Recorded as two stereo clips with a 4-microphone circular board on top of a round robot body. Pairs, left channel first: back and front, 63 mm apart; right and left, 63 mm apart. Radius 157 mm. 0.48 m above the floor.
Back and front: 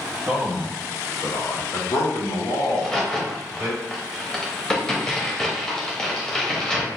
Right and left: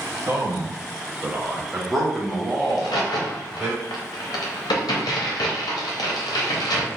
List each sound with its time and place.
0.3 s a man speaking: 70° left, 1.1 m; by 3.7 s 165° right, 3 m
2.7 s a crack: 100° right, 0.6 m